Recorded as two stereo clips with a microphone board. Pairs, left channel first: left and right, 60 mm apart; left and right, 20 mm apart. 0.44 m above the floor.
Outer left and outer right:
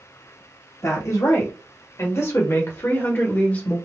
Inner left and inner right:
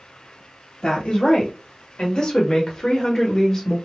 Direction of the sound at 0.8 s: 55° left (ahead or behind).